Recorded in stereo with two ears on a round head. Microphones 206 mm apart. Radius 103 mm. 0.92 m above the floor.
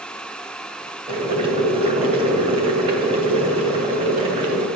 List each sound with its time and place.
1.1 s boiling: 25° right (ahead or behind), 2.5 m